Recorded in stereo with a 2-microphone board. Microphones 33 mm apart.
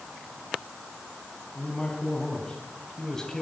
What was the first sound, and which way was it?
A man speaking, 25° left (ahead or behind).